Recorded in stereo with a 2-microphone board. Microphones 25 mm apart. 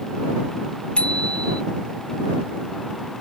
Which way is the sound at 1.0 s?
55° left (ahead or behind).